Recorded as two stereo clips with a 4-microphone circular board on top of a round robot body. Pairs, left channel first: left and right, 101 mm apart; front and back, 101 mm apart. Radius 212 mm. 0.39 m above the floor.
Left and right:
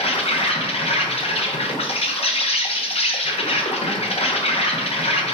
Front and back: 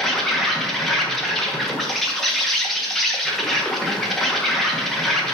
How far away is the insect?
About 1.3 m.